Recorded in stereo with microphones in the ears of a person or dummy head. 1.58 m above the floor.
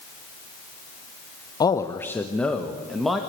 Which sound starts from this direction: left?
A man speaking, at 1.6 s.